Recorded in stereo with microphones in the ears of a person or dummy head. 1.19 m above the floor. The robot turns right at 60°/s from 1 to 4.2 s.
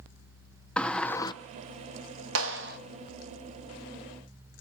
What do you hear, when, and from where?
0.8 s a sliding door: 5° left (ahead or behind), 0.6 m; by 1.3 s 25° left (ahead or behind), 0.6 m
2.4 s a clap: 75° right (ahead or behind), 0.9 m; by 2.8 s 50° right (ahead or behind), 0.9 m